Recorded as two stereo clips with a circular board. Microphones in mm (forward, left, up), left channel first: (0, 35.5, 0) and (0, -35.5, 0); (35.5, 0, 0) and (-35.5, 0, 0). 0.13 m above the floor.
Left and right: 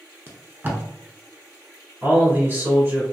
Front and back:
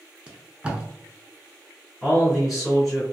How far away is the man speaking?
About 1.9 m.